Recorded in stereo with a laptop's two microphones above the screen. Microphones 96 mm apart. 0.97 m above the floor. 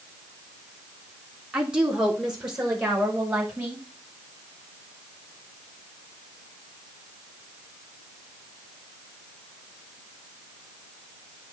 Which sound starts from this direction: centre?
A woman speaking, at 1.5 s.